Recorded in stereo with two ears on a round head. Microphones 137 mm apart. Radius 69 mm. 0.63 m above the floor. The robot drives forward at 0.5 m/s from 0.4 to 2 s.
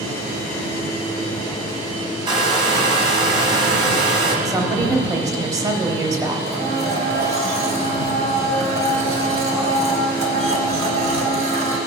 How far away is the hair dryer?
About 1.3 m.